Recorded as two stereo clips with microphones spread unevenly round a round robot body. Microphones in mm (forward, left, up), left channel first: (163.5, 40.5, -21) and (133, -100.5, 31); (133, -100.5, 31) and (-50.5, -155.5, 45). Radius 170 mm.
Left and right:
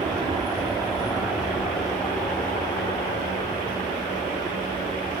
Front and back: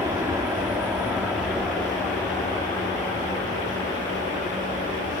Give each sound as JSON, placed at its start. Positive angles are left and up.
{"t": 0.0, "sound": "an aircraft", "azimuth_deg": -125}